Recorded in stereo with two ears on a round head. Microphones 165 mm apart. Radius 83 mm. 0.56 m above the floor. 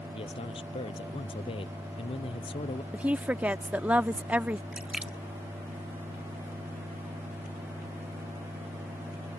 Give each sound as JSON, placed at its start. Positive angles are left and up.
{"t": 0.1, "sound": "a man speaking", "side_deg": 30}
{"t": 2.9, "sound": "a woman speaking", "side_deg": -5}
{"t": 4.7, "sound": "a splash", "side_deg": -5}